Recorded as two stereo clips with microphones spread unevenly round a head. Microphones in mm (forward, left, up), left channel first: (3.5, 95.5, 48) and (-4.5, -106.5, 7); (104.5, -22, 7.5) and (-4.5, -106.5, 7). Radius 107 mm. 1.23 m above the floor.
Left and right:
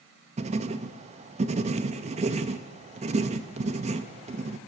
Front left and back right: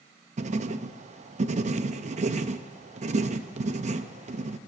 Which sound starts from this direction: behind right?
Writing, at 0.4 s.